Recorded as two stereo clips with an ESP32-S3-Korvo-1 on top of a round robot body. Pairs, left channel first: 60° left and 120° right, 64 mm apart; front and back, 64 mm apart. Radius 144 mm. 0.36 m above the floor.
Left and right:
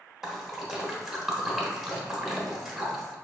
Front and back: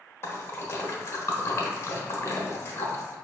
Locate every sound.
0.2 s a splash: 35° right, 1.0 m